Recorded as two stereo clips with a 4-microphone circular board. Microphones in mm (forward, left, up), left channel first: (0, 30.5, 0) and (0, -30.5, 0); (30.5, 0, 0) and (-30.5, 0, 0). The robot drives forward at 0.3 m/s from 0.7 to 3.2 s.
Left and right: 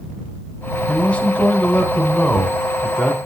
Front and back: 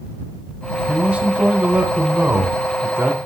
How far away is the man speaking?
About 1.4 m.